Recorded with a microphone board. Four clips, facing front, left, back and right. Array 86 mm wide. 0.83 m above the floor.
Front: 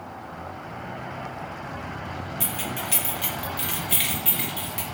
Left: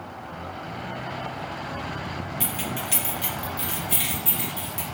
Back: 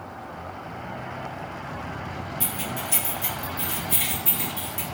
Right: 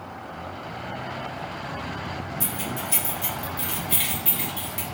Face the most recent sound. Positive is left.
turn(degrees=-35)